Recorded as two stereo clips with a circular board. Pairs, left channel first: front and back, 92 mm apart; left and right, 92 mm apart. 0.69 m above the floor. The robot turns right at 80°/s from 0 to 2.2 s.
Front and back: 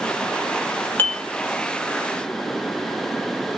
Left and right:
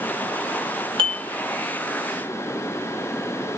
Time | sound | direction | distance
1.0 | dishes clattering | 70° right | 1.4 m